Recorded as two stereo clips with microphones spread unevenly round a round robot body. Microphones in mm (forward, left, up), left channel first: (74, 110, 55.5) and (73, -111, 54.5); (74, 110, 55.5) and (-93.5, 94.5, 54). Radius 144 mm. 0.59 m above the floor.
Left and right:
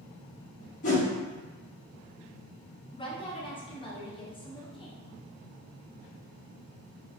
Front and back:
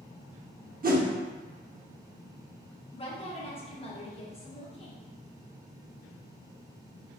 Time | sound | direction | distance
0.8 | a whoosh | 150° left | 0.7 m
2.9 | a woman speaking | 35° left | 0.9 m